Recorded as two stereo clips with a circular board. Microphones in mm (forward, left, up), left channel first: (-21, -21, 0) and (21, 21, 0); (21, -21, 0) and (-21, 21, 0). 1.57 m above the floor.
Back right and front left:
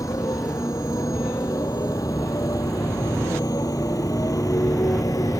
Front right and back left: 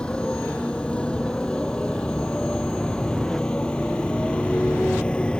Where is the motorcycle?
120° right.